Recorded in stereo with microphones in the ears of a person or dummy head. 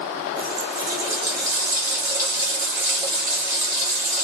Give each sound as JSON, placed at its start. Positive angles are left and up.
{"t": 0.4, "sound": "a running tap", "side_deg": -15, "distance_m": 1.0}